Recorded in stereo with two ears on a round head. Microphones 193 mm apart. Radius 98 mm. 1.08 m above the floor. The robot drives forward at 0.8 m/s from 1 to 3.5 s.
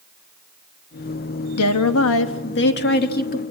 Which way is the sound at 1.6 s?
85° left.